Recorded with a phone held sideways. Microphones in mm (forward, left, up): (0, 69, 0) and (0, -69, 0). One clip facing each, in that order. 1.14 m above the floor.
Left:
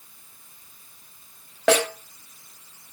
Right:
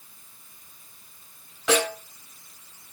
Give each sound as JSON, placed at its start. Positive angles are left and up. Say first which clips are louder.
{"t": 1.7, "sound": "a snare drum", "louder": "left 3 dB", "side_deg": 70, "distance_m": 4.5}